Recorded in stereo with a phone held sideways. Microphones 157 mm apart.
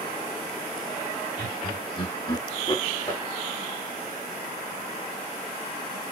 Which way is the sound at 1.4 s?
30° left (ahead or behind).